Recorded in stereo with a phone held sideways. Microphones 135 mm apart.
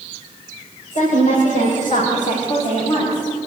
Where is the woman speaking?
70° left (ahead or behind), 5.5 m; by 3.3 s 50° left (ahead or behind), 6.5 m.